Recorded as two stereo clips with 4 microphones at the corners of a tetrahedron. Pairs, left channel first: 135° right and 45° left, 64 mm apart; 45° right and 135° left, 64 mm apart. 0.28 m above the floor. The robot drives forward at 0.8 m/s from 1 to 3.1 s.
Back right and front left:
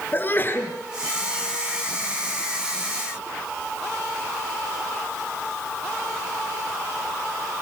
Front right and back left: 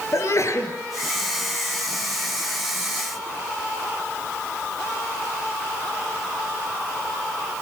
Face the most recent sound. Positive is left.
turn(degrees=-95)